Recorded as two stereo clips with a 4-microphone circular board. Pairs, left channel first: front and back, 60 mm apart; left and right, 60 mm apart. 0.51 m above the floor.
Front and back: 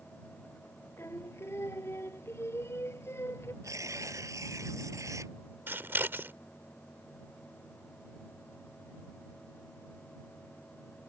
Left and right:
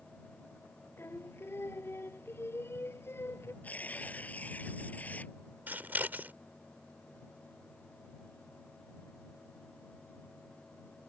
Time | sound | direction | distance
1.0 | singing | 45° left | ?
3.6 | tearing paper | 155° left | ?
5.7 | scissors | 140° right | ?